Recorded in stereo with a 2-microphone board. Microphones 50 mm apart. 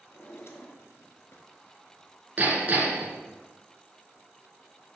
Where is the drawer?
60° left (ahead or behind), 1.1 m.